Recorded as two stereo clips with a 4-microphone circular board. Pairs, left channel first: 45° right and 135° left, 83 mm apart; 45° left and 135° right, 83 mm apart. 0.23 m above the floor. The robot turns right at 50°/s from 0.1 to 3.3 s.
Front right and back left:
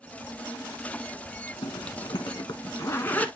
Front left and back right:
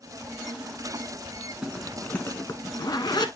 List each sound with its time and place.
1.6 s a zipper: 55° right, 1.1 m; by 3.3 s 30° left, 1.1 m